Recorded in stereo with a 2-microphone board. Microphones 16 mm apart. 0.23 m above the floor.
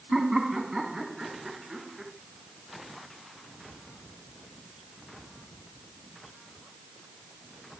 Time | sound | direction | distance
0.1 | laughter | 25° right (ahead or behind) | 2 m